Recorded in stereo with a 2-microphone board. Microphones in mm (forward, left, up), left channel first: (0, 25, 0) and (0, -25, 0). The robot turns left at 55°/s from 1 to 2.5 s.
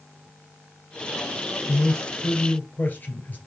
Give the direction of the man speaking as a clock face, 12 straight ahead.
9 o'clock.